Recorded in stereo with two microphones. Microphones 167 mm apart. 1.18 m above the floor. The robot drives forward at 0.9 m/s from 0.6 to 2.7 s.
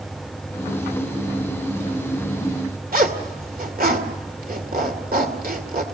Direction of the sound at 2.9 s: 60° right (ahead or behind).